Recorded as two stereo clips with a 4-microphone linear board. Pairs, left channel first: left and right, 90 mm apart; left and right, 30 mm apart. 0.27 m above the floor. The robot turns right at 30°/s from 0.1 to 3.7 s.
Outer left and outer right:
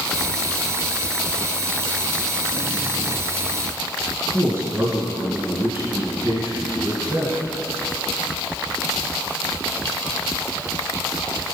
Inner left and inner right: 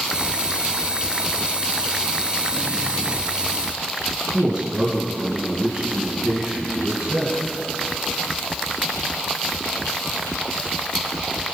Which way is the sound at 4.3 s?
30° right (ahead or behind).